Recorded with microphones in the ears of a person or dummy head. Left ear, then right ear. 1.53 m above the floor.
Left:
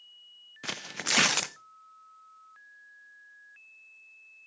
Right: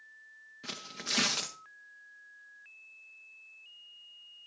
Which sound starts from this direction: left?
Tearing paper, at 0.6 s.